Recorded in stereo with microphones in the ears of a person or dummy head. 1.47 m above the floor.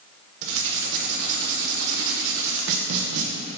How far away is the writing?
About 0.8 m.